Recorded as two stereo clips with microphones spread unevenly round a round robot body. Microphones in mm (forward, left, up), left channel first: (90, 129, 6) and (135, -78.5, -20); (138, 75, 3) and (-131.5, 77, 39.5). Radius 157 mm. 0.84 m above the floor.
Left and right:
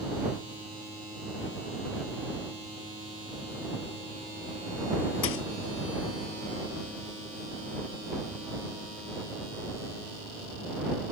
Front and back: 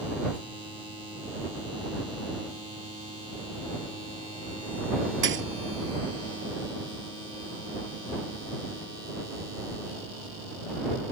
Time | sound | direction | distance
5.2 | a thud | 135° left | ?